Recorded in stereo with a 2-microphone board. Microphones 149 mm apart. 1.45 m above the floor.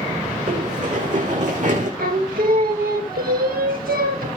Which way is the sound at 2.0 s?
80° right.